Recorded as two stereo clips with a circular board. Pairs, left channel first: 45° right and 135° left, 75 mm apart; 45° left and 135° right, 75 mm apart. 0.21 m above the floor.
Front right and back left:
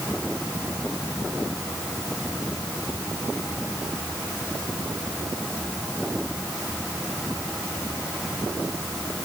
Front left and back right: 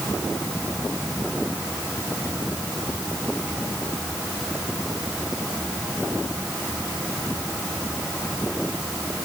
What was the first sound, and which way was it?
Only background noise.